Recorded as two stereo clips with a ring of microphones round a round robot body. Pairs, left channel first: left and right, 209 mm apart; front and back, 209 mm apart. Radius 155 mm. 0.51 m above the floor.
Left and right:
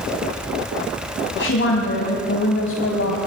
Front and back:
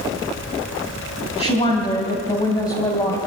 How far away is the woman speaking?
About 3.5 m.